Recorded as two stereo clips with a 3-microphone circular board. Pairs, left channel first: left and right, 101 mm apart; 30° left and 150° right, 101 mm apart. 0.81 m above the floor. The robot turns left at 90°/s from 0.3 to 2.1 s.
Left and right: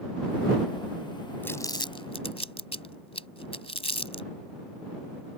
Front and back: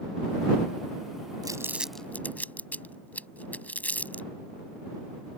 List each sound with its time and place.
1.4 s crumpling: 165° left; by 4.3 s 105° left